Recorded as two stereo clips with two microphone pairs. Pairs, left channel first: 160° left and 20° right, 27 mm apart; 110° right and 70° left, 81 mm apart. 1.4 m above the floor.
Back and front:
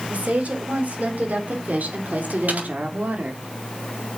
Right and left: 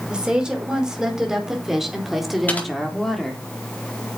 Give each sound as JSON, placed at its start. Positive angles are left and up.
{"t": 0.1, "sound": "a woman speaking", "azimuth_deg": -5, "distance_m": 5.0}
{"t": 2.5, "sound": "typing on a keyboard", "azimuth_deg": -35, "distance_m": 4.5}